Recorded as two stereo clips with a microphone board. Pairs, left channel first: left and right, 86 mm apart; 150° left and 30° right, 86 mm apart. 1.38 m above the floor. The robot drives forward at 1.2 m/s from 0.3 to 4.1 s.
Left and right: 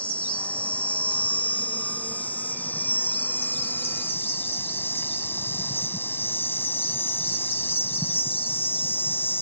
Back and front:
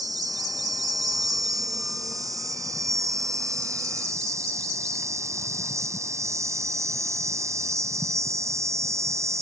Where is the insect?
15° left; by 9.4 s 25° left.